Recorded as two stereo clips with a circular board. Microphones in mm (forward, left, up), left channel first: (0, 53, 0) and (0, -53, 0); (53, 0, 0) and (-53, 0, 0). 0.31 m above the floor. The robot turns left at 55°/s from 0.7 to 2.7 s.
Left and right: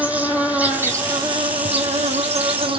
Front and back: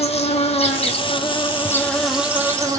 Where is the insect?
15° right, 1.1 m; by 2.8 s 125° right, 1.1 m.